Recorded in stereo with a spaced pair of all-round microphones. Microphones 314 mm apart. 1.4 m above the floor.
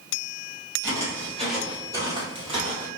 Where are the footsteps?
10° left (ahead or behind), 1.8 m; by 2.9 s 25° right (ahead or behind), 2.0 m.